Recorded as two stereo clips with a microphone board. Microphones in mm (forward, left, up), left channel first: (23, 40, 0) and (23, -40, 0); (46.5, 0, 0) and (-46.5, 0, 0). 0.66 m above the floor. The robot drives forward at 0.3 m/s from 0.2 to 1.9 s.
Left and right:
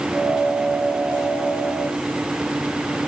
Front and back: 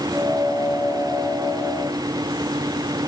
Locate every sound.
Only background noise.